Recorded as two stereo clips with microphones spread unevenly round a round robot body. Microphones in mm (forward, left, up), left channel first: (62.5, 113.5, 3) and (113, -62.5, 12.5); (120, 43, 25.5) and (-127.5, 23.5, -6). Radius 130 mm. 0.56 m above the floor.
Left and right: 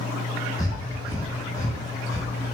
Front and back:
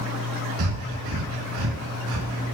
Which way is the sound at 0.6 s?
175° right.